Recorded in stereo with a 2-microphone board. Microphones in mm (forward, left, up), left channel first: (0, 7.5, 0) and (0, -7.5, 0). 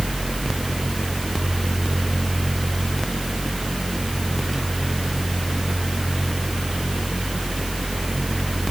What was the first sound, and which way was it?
Only background noise.